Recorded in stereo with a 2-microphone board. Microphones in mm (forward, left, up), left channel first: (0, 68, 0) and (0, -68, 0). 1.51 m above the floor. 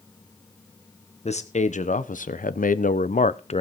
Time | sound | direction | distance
1.2 | a man speaking | 55° left (ahead or behind) | 1.3 m